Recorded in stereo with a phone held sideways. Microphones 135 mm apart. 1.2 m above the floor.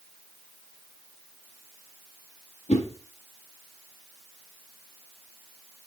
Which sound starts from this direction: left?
A whoosh, at 2.7 s.